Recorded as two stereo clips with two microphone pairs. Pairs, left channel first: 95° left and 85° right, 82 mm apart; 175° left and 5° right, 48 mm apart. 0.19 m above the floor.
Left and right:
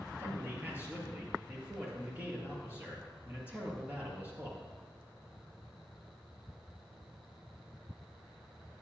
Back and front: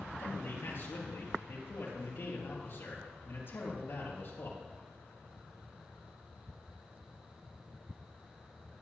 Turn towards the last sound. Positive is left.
turn(degrees=-150)